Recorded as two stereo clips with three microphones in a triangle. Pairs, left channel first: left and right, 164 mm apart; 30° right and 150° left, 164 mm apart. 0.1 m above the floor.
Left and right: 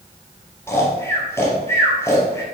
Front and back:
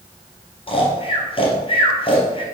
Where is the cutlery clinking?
No cutlery clinking in this recording.